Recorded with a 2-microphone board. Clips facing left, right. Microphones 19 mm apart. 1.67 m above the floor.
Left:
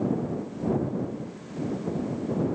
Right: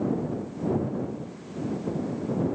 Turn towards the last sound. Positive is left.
No sound to turn to.